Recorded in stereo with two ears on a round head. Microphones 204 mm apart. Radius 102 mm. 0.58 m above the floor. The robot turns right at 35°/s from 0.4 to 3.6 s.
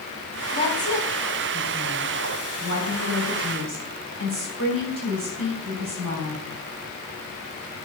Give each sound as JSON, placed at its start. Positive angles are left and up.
{"t": 0.5, "sound": "a woman speaking", "azimuth_deg": 150, "distance_m": 4.0}